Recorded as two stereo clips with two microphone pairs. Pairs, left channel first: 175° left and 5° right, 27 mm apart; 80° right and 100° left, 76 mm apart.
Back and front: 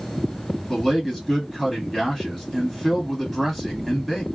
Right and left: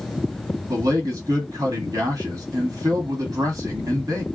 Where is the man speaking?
95° left, 1.6 m.